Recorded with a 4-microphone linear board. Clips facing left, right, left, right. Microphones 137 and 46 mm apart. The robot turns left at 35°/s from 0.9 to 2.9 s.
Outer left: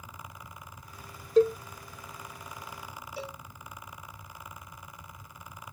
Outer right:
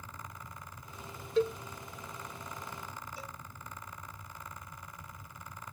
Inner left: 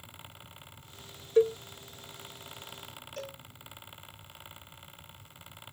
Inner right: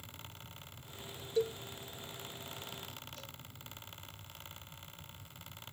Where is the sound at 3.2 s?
75° left (ahead or behind).